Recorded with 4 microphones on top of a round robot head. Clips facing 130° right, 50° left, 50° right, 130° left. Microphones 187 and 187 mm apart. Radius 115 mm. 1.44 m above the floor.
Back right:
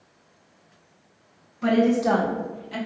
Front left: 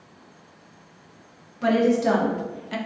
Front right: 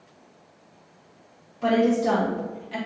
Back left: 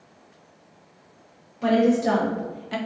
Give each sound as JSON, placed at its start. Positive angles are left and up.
{"t": 1.6, "sound": "a woman speaking", "azimuth_deg": 50, "distance_m": 1.7}